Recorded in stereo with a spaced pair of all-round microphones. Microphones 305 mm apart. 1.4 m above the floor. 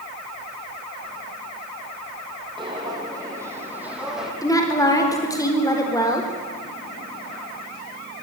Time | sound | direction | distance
2.6 | footsteps | 15° right (ahead or behind) | 4 m
4.4 | a woman speaking | 10° left (ahead or behind) | 4 m